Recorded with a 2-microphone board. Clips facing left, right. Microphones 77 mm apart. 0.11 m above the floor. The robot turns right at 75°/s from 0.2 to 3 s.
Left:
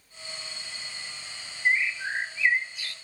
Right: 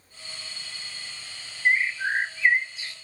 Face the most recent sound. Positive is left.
turn(degrees=-30)